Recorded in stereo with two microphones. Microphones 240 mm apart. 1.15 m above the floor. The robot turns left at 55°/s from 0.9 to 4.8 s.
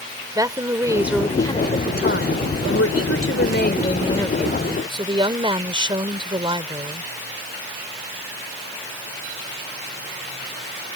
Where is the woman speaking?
165° right; by 7.1 s 20° right.